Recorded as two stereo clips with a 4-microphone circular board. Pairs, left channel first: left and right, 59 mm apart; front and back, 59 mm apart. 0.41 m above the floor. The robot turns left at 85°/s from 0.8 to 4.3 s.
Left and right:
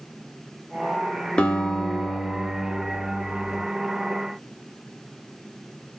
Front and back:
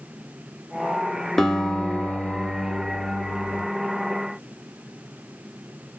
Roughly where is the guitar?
Left.